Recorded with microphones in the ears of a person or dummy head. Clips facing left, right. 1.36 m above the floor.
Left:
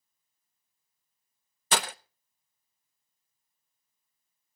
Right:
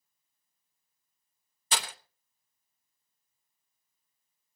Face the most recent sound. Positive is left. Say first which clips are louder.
# left 6 dB
turn(degrees=40)  # may be behind; listen again after turning